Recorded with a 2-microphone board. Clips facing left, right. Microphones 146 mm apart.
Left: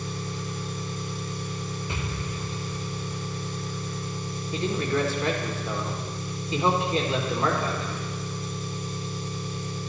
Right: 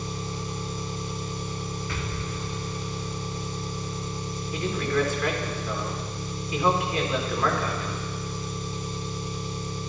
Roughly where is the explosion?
Centre.